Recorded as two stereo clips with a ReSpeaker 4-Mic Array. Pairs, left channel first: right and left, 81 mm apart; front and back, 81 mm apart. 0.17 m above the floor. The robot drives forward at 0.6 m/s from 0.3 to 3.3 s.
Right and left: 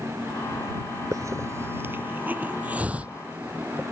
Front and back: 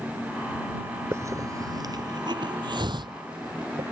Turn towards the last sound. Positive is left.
turn(degrees=165)